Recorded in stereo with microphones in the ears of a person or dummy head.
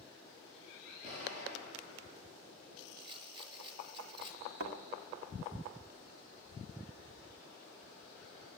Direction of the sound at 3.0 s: 30° right (ahead or behind).